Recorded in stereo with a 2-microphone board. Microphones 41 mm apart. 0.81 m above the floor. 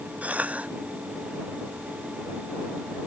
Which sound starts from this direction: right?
A cough, at 0.2 s.